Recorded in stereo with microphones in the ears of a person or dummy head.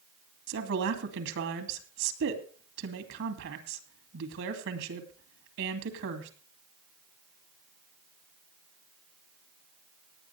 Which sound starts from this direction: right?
A woman speaking, at 0.5 s.